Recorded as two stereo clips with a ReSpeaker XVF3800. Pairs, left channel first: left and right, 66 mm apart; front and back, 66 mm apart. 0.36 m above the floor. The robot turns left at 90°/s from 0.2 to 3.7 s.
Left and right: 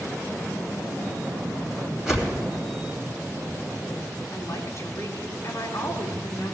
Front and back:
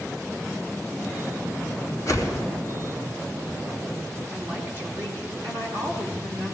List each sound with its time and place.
2.1 s a whoosh: straight ahead, 2.5 m; by 2.4 s 35° right, 2.5 m
4.3 s a woman speaking: 130° left, 3.5 m